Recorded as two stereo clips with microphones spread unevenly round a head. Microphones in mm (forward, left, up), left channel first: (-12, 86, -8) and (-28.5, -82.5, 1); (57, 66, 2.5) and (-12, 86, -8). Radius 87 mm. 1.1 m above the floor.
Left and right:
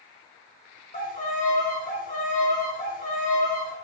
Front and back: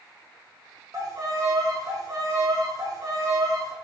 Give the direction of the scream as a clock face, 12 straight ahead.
I don't hear a scream.